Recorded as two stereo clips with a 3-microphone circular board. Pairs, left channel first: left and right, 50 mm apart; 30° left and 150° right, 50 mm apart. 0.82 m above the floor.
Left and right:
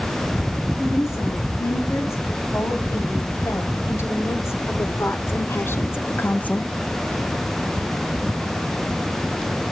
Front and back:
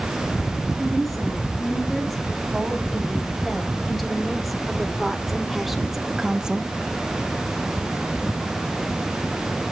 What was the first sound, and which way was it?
A woman speaking, 115° left.